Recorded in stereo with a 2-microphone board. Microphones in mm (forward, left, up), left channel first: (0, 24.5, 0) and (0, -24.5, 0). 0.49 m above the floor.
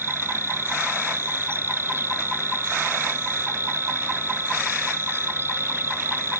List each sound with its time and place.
0.0 s an insect: 55° right (ahead or behind)